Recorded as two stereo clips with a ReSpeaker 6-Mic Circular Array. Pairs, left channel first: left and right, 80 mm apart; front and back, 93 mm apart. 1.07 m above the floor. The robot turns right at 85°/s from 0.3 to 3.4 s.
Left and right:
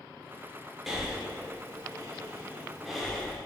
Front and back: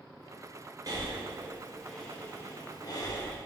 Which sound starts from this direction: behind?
Breathing, at 0.9 s.